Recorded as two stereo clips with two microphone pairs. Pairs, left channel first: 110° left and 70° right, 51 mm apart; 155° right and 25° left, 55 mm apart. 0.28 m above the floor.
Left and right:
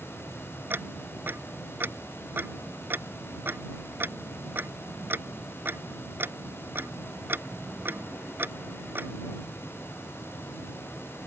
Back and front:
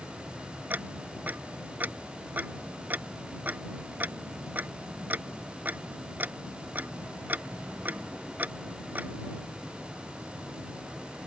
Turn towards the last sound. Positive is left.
turn(degrees=-25)